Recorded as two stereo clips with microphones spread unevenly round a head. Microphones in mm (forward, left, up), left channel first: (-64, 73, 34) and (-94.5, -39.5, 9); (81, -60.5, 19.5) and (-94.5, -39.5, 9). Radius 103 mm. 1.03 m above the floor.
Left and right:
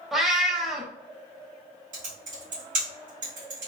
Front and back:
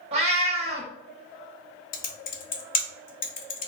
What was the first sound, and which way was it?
A cat meowing, 145° left.